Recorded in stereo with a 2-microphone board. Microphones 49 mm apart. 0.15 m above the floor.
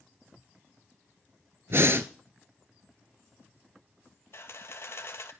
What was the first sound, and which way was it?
Breathing, 60° right (ahead or behind).